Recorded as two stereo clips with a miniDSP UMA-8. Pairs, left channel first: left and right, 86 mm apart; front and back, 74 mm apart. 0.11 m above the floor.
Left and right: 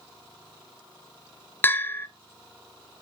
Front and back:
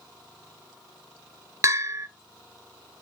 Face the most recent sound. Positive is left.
turn(degrees=145)